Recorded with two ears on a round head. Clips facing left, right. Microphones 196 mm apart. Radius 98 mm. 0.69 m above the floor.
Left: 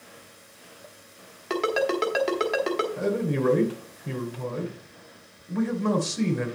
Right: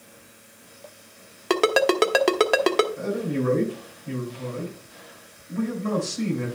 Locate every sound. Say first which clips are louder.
1.5 s a ringtone: right 5 dB; 65° right (ahead or behind), 1.4 m
3.0 s a man speaking: left 1 dB; 70° left (ahead or behind), 3 m